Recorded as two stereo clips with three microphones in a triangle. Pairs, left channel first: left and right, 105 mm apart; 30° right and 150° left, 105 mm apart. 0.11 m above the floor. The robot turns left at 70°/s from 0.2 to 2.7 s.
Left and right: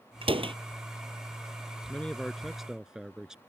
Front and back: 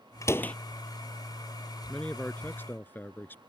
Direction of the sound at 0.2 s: 85° right.